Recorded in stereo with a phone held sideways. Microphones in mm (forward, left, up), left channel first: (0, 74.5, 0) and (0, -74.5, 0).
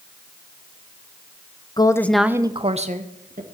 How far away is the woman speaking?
About 0.9 m.